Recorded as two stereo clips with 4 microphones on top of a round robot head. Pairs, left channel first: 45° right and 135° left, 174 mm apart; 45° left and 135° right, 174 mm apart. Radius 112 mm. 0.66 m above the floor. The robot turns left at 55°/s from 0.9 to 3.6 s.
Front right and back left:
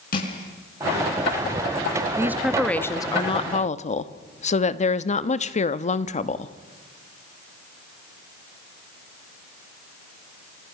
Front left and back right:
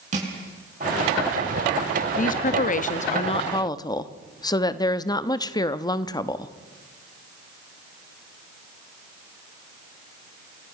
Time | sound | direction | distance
0.1 | crushing | 85° right | 7.5 m
2.2 | a woman speaking | 65° left | 1.1 m